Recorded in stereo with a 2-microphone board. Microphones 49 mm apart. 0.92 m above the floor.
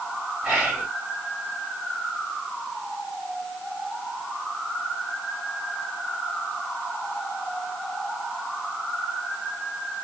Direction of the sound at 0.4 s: 20° right (ahead or behind).